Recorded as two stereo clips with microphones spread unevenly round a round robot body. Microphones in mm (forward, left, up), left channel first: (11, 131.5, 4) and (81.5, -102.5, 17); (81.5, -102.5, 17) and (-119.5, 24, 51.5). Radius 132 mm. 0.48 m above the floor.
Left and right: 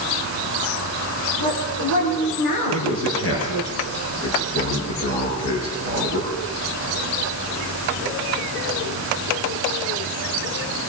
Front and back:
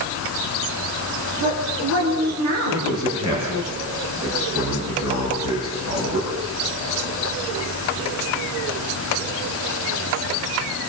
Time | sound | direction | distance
1.4 | a woman speaking | 110° left | 9 m
2.7 | a man speaking | 75° left | 7.5 m